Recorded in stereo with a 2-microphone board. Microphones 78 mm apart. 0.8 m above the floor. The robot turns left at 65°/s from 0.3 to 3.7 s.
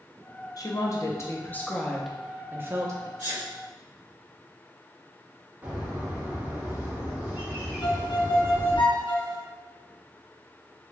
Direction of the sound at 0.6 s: 95° left.